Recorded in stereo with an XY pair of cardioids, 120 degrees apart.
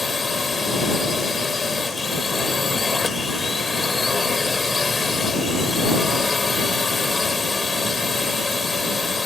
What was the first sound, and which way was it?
A drone, 20° left.